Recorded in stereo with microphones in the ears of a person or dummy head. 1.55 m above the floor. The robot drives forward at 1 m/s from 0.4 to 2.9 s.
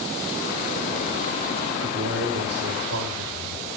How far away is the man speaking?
About 6 m.